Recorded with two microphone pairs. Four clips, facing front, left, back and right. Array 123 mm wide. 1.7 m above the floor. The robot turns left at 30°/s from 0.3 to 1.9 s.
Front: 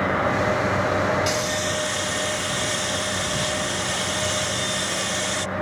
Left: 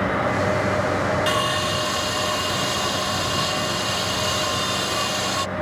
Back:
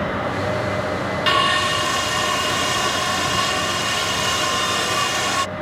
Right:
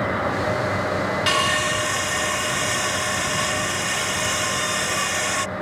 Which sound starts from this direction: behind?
Sawing, at 1.3 s.